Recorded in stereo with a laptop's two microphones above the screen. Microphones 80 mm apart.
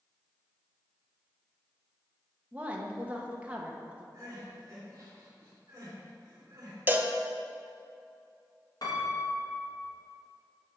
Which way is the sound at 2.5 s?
20° right (ahead or behind).